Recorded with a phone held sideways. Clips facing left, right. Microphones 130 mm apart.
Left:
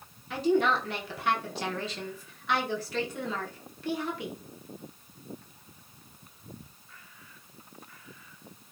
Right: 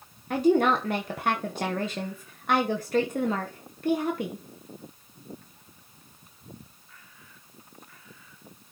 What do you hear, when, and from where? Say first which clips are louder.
0.3 s a woman speaking: right 4 dB; 50° right (ahead or behind), 1.0 m